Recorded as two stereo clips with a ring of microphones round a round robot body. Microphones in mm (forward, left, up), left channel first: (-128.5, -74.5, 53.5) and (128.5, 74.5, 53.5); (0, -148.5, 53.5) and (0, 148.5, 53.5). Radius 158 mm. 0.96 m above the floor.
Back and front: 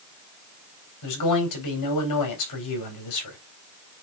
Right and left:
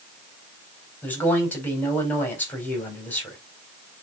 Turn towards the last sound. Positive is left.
turn(degrees=-175)